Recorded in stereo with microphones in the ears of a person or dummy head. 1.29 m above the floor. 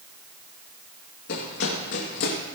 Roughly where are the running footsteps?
Left.